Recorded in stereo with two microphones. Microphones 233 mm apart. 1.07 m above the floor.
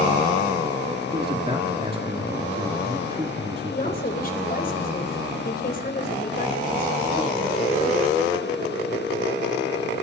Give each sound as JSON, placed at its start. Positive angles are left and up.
{"t": 1.1, "sound": "a man speaking", "side_deg": -25, "distance_m": 2.5}
{"t": 3.7, "sound": "a woman speaking", "side_deg": 40, "distance_m": 4.0}